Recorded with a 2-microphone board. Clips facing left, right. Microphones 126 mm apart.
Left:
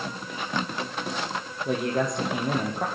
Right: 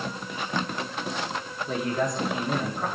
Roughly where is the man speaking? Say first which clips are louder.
Left 2 dB; left.